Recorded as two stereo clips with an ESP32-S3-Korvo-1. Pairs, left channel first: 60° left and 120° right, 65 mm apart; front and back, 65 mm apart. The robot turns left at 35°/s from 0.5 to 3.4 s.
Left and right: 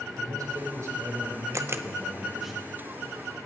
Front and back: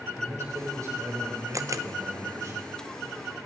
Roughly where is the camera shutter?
Behind right.